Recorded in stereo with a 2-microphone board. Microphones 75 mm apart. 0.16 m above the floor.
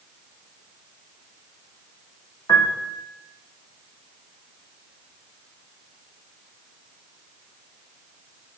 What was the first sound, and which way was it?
A piano, 55° left (ahead or behind).